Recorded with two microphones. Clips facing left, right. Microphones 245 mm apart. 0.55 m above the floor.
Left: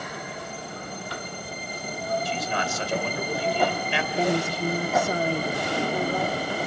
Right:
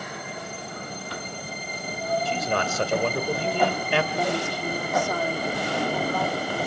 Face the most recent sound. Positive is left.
turn(degrees=25)  # may be behind; listen again after turning